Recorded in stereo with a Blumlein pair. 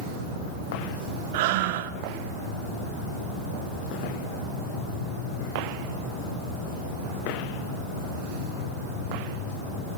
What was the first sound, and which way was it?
Breathing, 50° right.